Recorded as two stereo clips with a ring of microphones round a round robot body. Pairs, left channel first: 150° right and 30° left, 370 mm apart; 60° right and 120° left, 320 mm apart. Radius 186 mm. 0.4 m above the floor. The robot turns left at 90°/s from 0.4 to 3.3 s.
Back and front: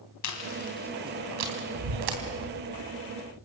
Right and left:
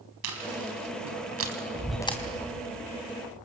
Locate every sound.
0.2 s chewing: 165° left, 3.5 m; by 2.2 s 5° left, 3.5 m